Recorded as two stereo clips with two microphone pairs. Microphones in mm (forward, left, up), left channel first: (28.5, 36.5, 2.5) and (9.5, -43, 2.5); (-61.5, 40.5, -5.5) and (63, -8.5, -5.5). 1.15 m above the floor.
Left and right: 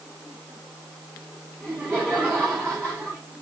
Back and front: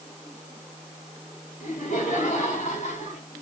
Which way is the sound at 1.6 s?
170° right.